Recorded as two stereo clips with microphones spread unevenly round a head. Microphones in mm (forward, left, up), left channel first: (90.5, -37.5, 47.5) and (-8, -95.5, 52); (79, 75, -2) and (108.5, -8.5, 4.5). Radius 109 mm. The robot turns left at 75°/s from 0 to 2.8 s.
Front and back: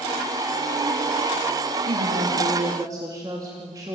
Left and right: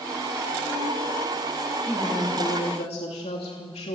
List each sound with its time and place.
1.9 s a woman speaking: 150° right, 2.5 m; by 4.0 s 140° left, 2.5 m